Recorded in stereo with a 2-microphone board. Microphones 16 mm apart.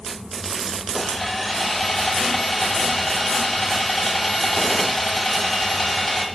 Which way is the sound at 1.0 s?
10° left (ahead or behind).